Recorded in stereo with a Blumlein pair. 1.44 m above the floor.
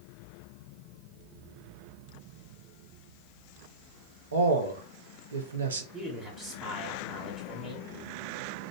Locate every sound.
4.3 s a man speaking: 70° right, 0.8 m
5.9 s a man speaking: 10° right, 1.3 m